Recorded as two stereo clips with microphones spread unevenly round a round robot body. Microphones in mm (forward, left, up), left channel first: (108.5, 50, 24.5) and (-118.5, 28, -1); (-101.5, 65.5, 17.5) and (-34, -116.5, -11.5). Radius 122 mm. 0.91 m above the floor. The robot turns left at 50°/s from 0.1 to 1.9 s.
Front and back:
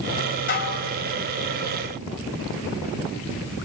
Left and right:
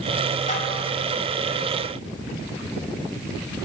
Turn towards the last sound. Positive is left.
turn(degrees=-25)